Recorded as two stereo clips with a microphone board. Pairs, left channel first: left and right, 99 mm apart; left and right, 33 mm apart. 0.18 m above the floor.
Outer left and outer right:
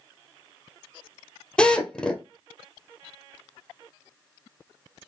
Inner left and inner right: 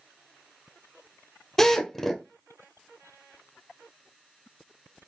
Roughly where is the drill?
Centre.